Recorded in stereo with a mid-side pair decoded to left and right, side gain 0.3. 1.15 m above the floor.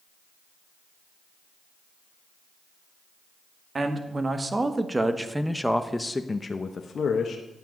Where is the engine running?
I don't hear an engine running.